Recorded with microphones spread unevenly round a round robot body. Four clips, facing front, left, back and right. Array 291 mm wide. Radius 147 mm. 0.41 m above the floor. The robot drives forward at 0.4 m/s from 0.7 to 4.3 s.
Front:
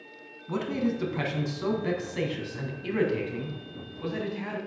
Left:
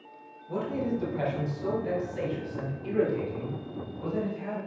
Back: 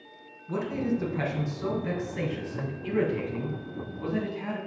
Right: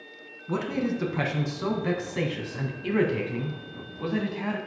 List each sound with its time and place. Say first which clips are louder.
0.5 s a man speaking: right 2 dB, even; 50° right, 3 m; by 4.6 s 80° right, 2.5 m